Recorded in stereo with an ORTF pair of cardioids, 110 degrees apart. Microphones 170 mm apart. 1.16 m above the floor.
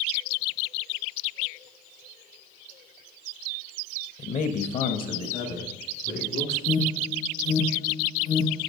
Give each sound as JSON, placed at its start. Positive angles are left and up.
{"t": 4.2, "sound": "a man speaking", "azimuth_deg": 40, "distance_m": 0.8}
{"t": 6.7, "sound": "an alarm", "azimuth_deg": 60, "distance_m": 1.9}